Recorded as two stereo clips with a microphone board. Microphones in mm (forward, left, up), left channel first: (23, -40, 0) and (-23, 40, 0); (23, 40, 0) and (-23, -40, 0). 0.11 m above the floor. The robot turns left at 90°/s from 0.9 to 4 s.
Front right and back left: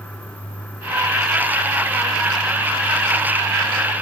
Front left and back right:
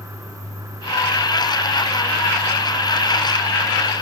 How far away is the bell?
I don't hear a bell.